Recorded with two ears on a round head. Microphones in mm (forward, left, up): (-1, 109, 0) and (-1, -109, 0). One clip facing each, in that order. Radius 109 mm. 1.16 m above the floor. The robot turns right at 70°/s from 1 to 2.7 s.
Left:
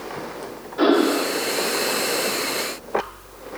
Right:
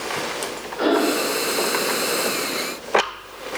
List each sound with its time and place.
0.8 s breathing: 75° left, 2.5 m; by 1.4 s 105° left, 2.5 m